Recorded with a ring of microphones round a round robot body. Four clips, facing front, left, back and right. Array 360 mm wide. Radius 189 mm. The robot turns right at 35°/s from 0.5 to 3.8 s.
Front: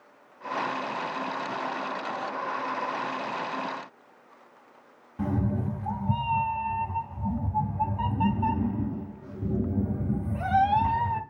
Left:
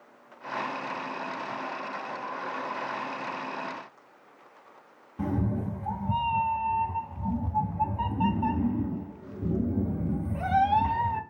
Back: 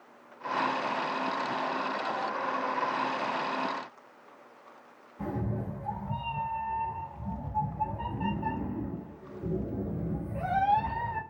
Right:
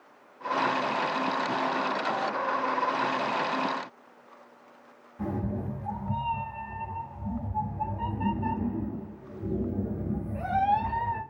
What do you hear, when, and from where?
5.2 s a cat meowing: 45° left, 0.7 m